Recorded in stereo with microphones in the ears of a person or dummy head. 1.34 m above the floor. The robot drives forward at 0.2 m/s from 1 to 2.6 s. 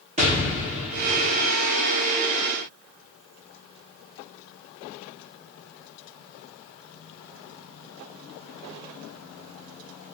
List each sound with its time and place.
0.2 s an explosion: 20° right (ahead or behind), 0.7 m